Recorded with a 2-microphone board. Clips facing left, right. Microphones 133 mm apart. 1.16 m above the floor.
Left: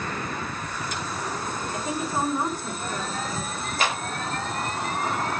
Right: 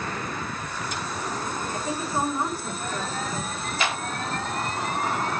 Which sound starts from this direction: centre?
A woman speaking, at 1.7 s.